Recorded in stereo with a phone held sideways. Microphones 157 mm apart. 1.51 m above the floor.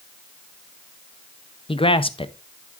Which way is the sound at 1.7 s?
35° left (ahead or behind).